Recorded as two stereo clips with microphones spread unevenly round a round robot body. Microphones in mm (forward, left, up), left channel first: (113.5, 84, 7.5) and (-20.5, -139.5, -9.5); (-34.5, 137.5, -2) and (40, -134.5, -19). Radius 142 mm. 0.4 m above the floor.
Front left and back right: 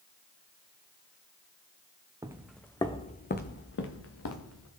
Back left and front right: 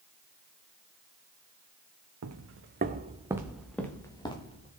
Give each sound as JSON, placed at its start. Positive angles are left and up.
{"t": 2.2, "sound": "footsteps", "azimuth_deg": -45, "distance_m": 1.3}